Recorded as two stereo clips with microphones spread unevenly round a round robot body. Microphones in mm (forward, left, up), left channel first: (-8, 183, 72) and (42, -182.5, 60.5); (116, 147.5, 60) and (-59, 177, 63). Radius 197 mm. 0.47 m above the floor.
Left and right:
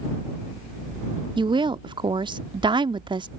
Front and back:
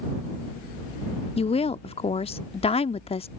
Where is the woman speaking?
15° right.